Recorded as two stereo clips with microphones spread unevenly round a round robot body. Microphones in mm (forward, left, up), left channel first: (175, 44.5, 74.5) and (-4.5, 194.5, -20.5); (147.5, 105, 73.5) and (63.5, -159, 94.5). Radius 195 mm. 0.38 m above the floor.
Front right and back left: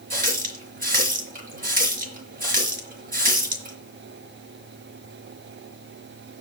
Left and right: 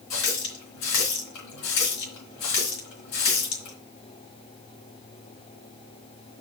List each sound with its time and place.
0.1 s a running tap: 95° left, 3.5 m